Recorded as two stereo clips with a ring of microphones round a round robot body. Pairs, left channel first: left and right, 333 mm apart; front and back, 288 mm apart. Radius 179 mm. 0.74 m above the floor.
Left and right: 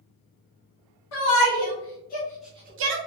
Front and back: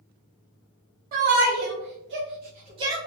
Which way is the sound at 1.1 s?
120° left.